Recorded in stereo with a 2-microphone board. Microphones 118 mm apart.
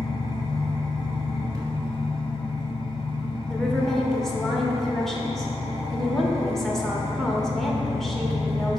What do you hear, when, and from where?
0.0 s an engine running: 30° right (ahead or behind), 2.5 m
3.5 s a woman speaking: 5° left (ahead or behind), 1.2 m